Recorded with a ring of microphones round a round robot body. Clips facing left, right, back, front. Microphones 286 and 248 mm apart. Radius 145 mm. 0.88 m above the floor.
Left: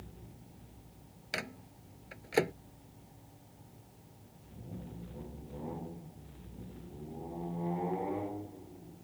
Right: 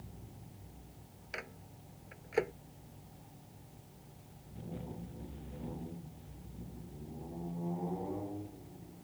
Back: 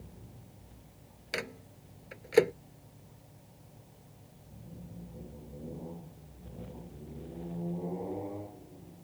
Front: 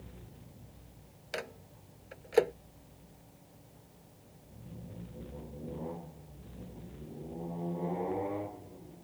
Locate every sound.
1.3 s a microwave: 120° left